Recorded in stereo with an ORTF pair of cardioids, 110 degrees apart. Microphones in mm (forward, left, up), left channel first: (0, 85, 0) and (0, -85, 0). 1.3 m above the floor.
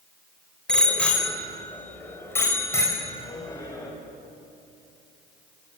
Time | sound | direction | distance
0.7 | a bicycle bell | 5° left | 4 m